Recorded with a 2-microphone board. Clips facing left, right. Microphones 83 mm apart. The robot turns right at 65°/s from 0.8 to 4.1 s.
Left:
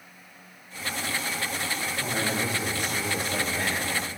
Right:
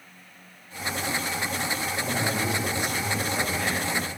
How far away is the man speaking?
About 5 m.